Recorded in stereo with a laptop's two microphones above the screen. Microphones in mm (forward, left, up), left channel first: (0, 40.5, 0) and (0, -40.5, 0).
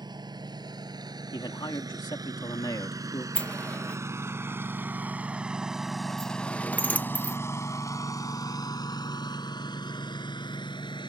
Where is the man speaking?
60° left (ahead or behind).